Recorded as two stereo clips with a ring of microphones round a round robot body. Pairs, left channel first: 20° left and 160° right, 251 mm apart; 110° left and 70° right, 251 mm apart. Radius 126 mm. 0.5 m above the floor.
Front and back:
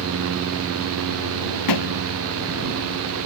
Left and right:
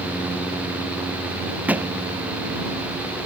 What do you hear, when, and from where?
1.7 s a thud: 15° left